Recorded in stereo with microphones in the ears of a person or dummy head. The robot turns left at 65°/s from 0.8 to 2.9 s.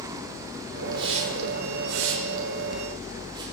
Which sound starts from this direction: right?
A hiss, at 0.9 s.